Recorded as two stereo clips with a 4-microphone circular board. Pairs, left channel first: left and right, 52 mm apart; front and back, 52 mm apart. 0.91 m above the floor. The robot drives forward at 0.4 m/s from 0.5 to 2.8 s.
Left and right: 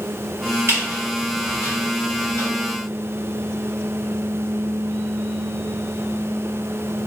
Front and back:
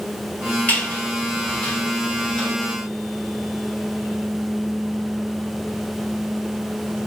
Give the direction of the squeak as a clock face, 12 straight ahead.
2 o'clock.